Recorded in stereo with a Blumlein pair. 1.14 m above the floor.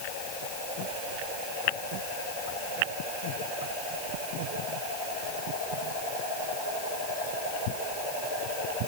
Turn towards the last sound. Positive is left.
No sound to turn to.